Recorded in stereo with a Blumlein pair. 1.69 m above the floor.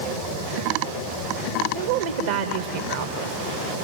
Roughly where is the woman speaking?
Ahead right.